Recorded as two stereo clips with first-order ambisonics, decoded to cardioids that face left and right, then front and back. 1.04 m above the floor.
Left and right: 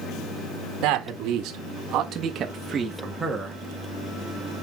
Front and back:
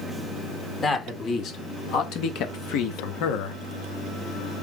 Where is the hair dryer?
No hair dryer in this recording.